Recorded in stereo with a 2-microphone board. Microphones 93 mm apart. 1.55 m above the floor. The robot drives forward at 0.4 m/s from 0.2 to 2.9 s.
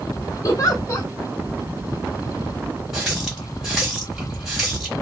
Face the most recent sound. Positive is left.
turn(degrees=-5)  # may be behind; listen again after turning